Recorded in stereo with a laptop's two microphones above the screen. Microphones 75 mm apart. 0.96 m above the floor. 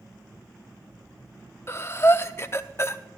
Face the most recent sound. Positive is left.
turn(degrees=35)  # may be behind; listen again after turning